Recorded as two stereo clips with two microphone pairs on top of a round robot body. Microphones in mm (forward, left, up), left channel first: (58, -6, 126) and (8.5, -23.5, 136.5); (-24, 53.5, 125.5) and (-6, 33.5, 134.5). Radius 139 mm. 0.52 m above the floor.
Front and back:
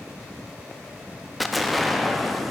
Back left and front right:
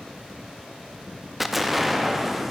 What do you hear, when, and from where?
1.4 s an explosion: 80° left, 0.7 m